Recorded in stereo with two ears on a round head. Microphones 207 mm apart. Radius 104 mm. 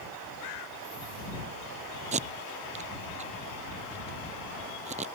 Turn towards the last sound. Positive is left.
turn(degrees=-30)  # may be behind; listen again after turning